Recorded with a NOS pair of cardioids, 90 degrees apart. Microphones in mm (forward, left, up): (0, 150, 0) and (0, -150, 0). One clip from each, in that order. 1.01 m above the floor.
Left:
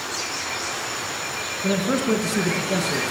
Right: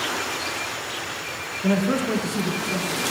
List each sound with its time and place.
1.6 s a man speaking: 10° right, 0.8 m; by 3.0 s 55° left, 0.9 m